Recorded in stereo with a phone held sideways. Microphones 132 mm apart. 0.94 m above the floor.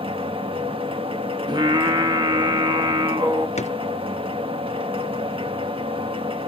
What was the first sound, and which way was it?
A machine running, 45° right (ahead or behind).